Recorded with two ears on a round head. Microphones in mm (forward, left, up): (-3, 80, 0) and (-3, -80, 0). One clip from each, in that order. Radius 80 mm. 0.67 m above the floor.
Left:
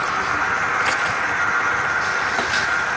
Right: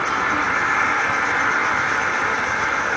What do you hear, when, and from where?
0.0 s an insect: 35° right (ahead or behind), 4 m